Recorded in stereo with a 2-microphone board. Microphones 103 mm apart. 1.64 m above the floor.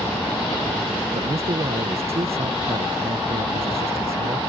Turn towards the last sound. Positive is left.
turn(degrees=-80)